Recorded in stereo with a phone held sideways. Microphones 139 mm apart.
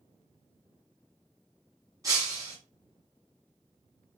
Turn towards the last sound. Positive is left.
turn(degrees=-25)  # may be behind; listen again after turning